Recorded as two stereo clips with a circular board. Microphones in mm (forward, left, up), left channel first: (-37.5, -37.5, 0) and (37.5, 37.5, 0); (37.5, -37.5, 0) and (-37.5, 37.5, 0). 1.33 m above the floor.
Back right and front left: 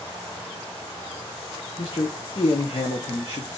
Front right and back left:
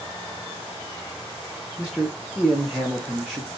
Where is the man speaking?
140° right, 0.7 m.